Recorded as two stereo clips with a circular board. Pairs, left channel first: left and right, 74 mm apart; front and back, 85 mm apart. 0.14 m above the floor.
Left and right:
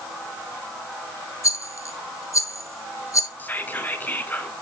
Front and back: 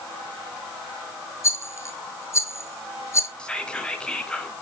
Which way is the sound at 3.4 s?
65° left.